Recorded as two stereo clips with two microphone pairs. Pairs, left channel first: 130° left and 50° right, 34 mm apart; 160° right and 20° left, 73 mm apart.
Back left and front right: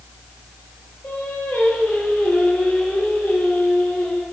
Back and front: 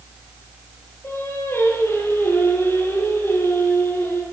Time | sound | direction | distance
1.0 | singing | 145° left | 10 m